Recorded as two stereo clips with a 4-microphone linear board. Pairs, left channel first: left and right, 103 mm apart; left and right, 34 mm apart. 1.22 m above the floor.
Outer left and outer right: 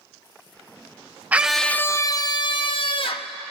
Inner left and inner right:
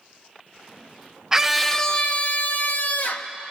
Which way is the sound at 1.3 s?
15° right (ahead or behind).